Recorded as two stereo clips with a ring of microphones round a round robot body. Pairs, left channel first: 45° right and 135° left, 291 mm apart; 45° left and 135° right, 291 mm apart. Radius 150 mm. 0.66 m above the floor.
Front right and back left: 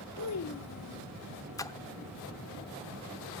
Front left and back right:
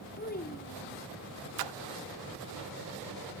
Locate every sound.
0.2 s a child speaking: 15° right, 1.5 m
1.6 s a splash: 125° right, 0.7 m